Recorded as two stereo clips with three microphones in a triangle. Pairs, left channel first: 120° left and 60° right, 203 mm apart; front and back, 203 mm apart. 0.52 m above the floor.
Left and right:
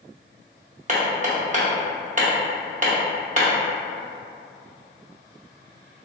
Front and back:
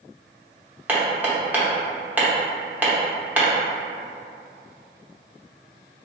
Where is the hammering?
100° right, 0.8 m.